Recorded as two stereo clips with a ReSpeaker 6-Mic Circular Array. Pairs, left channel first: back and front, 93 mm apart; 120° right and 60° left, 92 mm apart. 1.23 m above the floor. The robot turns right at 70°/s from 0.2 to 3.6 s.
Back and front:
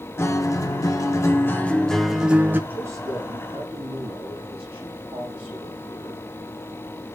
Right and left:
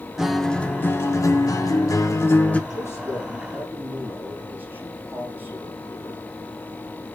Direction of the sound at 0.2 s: 140° left.